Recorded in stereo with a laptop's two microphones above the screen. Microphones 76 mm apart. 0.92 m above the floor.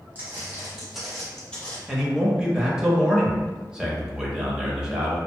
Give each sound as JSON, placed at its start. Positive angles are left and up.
{"t": 0.1, "sound": "footsteps", "side_deg": -20, "distance_m": 1.6}
{"t": 1.9, "sound": "a man speaking", "side_deg": -10, "distance_m": 0.8}